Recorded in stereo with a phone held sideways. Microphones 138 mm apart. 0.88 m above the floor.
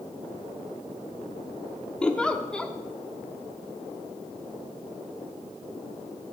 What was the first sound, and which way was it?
A giggle, 10° left (ahead or behind).